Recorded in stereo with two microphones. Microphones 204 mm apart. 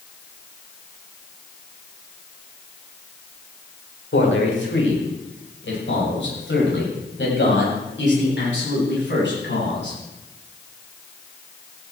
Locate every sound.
4.1 s a man speaking: 90° left, 5.5 m; by 10.0 s 70° left (ahead or behind), 12 m